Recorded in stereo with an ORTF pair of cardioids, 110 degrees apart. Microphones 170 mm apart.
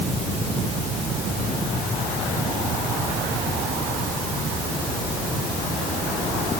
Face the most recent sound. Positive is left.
No sound to turn to.